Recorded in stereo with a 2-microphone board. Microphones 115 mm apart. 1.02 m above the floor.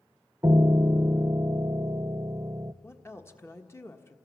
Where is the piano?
30° right (ahead or behind), 0.6 m.